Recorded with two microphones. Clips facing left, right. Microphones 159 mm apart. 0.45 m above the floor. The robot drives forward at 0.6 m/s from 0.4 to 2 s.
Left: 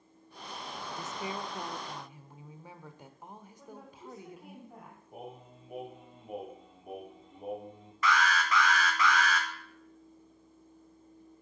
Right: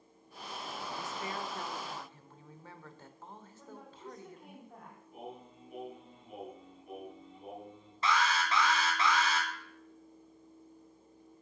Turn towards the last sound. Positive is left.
turn(degrees=-30)  # may be behind; listen again after turning